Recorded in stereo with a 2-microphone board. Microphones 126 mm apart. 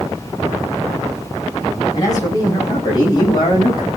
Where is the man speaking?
30° left (ahead or behind), 8.5 m; by 3.9 s 40° left (ahead or behind), 6 m.